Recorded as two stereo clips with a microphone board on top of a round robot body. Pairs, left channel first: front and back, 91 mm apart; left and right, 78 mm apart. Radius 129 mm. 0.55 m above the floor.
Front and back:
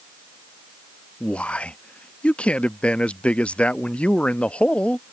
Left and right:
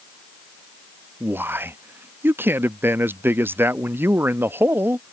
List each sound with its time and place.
1.2 s a man speaking: 65° right